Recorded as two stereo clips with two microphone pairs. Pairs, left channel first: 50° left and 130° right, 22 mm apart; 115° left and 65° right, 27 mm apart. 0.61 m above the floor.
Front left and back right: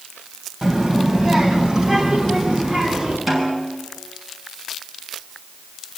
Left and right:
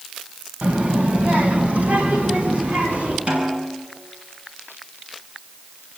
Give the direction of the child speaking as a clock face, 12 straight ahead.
2 o'clock.